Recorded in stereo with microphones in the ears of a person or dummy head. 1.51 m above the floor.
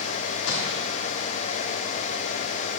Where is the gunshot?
80° left, 3.5 m.